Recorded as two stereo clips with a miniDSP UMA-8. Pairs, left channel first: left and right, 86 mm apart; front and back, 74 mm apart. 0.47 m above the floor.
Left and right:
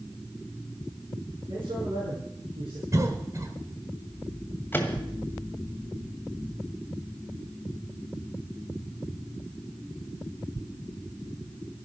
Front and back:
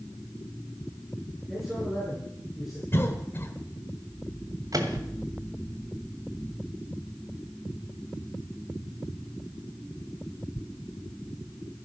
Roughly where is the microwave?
Behind left.